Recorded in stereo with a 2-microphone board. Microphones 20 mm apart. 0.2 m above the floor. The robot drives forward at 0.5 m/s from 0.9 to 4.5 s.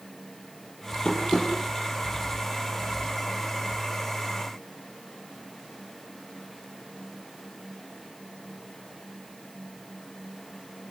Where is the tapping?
40° left (ahead or behind), 6 m; by 1.5 s 35° left (ahead or behind), 6.5 m.